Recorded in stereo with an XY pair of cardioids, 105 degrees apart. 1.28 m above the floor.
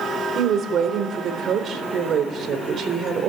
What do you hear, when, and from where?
0.3 s a woman speaking: 55° right, 4 m